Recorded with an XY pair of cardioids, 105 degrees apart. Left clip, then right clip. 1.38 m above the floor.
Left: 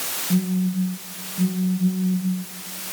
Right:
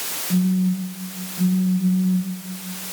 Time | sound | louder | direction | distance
0.3 | a phone buzzing | right 4 dB | 20° left | 5 m